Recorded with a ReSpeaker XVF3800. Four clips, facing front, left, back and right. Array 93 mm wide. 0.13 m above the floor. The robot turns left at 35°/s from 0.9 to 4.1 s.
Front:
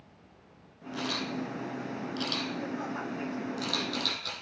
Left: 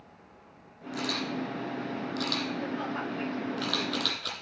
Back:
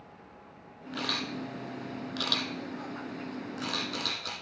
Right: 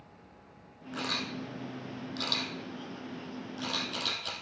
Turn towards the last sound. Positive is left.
turn(degrees=100)